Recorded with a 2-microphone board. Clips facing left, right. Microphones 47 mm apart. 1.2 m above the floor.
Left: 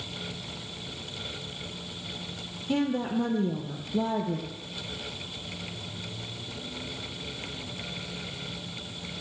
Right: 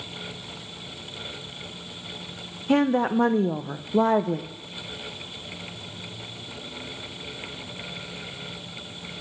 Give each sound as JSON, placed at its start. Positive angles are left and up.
{"t": 2.7, "sound": "a woman speaking", "side_deg": -75, "distance_m": 0.6}